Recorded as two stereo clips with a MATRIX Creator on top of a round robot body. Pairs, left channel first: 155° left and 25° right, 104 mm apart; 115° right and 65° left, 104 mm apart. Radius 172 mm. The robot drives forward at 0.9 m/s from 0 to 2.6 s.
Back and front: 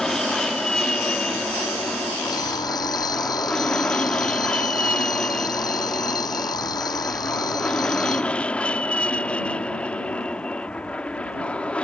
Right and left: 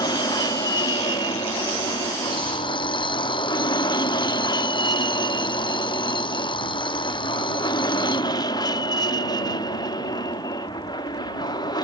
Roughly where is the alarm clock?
Behind right.